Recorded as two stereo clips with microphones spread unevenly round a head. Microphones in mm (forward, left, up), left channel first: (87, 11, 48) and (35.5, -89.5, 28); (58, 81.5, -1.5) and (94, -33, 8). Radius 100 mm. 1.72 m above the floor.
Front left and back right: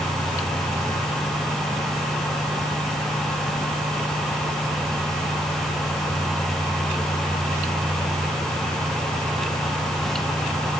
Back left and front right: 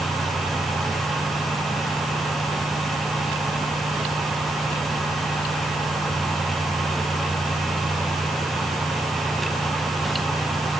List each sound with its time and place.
Only background noise.